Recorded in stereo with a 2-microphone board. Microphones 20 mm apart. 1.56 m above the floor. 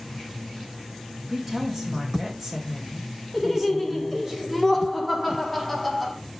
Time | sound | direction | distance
1.3 | a woman speaking | 20° right (ahead or behind) | 2 m
3.3 | laughter | centre (ahead or behind) | 1.7 m